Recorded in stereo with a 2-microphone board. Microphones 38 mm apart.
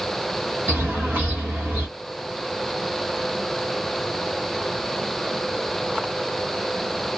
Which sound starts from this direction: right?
A bird, at 0.7 s.